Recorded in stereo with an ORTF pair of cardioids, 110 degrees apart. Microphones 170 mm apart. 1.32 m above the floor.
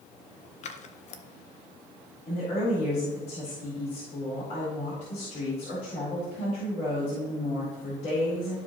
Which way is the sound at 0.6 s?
45° left.